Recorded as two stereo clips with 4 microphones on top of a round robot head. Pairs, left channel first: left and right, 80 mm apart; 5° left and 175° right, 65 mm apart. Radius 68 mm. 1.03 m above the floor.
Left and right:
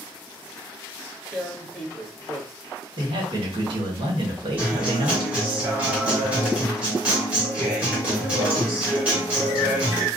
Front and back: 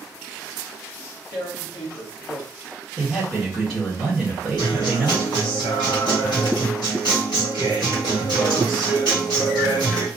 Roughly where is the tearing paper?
Ahead.